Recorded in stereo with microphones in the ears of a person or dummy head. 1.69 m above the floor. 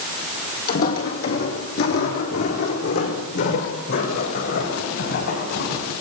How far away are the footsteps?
About 3.5 m.